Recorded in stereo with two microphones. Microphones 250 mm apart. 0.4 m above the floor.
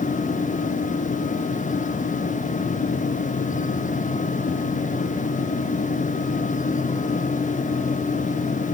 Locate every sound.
Only background noise.